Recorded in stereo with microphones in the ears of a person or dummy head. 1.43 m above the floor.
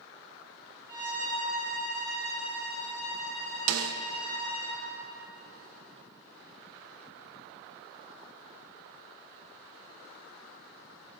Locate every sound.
0.9 s a violin: 20° right (ahead or behind), 5 m
3.7 s a snare drum: 85° right, 0.6 m